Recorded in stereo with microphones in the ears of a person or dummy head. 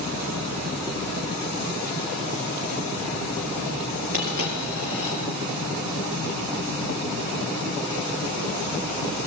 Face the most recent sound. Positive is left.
turn(degrees=-50)  # may be behind; listen again after turning